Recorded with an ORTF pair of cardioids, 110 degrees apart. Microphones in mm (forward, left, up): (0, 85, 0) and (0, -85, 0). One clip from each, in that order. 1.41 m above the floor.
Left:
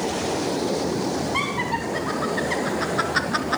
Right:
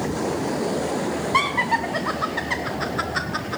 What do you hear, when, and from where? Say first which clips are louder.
1.3 s laughter: right 8 dB; 40° right, 1.3 m; by 3.6 s 40° left, 0.8 m